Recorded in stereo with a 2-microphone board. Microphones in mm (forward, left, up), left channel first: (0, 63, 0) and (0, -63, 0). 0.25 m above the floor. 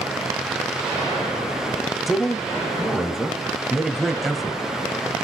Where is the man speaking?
Centre (ahead or behind), 1.0 m.